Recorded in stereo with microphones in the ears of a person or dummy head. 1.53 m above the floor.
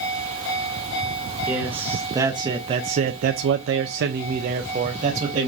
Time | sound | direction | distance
1.5 | a man speaking | 5° right (ahead or behind) | 1.2 m